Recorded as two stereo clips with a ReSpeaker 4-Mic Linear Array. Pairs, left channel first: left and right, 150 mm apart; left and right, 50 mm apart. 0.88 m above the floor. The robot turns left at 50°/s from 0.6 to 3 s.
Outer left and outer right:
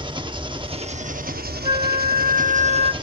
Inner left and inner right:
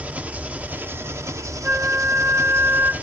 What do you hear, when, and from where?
0.0 s an engine running: 30° right, 0.8 m; by 3.0 s 150° right, 0.8 m
1.6 s a flute: 40° right, 0.7 m; by 2.9 s 105° right, 0.7 m